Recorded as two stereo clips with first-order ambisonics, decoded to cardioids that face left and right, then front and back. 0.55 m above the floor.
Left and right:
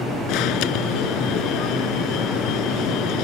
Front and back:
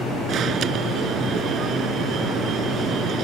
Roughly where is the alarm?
Behind left.